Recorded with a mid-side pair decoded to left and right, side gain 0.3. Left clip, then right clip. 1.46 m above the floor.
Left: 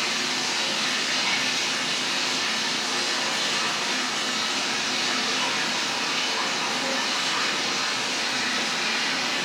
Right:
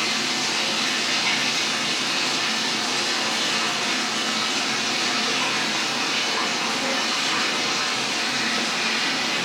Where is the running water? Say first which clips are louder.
Right 2 dB; 65° right, 0.9 m.